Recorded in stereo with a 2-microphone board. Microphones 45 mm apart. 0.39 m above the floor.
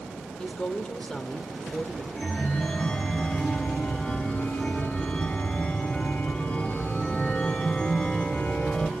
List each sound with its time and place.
0.4 s a woman speaking: 15° left (ahead or behind), 1.1 m
2.1 s a chime: 20° left (ahead or behind), 1.7 m